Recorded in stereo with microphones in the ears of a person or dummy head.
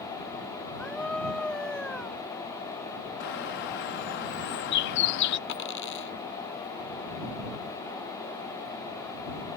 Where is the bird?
60° left (ahead or behind).